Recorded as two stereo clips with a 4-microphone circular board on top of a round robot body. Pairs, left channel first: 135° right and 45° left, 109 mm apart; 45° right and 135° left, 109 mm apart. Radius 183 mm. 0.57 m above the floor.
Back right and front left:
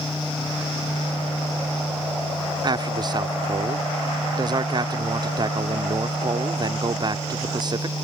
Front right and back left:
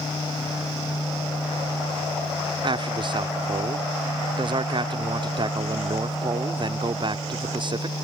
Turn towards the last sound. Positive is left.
turn(degrees=95)